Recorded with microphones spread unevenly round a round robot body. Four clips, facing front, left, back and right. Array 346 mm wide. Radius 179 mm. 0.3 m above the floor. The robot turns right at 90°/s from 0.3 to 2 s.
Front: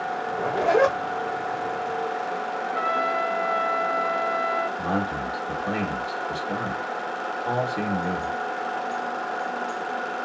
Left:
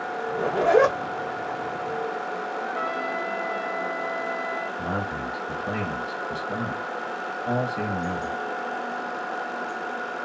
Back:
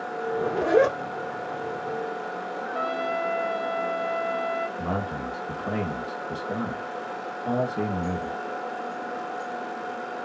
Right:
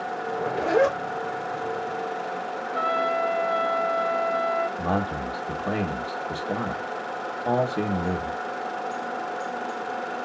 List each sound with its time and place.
0.3 s a zipper: 75° left, 1.6 m; by 1.0 s 135° left, 1.6 m
2.6 s a trumpet: 155° right, 0.7 m
4.8 s a man speaking: 100° right, 1.6 m